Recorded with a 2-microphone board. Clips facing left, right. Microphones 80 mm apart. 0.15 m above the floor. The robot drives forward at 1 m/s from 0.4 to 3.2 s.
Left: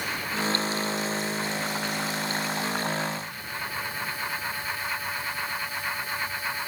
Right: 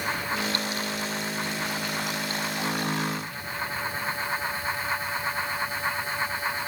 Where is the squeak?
No squeak in this recording.